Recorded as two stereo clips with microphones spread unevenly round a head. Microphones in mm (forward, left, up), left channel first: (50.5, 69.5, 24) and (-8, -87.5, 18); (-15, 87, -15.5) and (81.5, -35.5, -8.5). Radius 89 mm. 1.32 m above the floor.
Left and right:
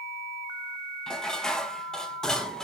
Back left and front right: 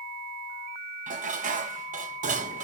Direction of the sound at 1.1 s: 15° right.